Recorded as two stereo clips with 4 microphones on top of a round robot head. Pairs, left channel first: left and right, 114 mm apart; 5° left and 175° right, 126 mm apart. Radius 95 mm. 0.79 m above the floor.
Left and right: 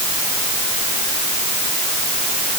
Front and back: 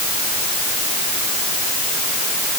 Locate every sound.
Only background noise.